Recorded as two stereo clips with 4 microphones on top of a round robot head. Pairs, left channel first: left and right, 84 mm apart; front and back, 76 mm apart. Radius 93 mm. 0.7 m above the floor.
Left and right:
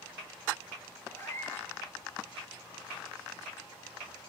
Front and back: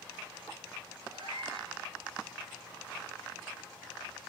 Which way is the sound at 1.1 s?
155° left.